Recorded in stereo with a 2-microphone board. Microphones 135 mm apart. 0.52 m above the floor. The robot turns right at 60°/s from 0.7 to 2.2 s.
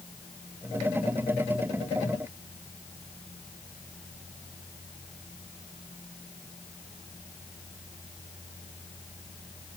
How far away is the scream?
No scream in this recording.